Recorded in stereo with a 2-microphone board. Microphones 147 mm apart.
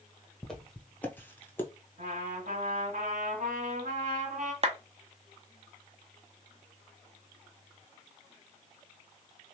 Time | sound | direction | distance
0.4 | footsteps | centre (ahead or behind) | 1.0 m
2.0 | a trumpet | 60° right (ahead or behind) | 1.8 m
4.6 | a clap | 45° right (ahead or behind) | 0.7 m